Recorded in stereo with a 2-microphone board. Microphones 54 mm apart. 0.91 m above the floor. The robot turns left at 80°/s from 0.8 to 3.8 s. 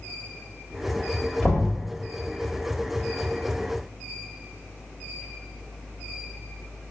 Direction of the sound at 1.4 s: 20° left (ahead or behind).